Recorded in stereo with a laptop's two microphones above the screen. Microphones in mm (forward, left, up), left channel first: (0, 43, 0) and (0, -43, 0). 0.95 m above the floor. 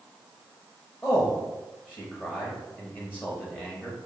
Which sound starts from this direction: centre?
A man speaking, at 1.0 s.